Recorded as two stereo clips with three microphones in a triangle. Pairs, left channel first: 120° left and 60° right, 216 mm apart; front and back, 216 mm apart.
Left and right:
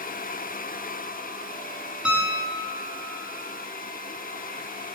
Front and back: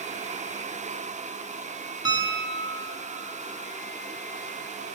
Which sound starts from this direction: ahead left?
A piano, at 2.0 s.